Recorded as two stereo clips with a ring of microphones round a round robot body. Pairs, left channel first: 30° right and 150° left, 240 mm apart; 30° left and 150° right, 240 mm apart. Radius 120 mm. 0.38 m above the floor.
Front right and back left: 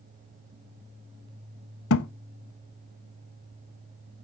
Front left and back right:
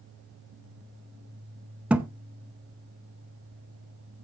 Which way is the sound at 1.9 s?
65° right.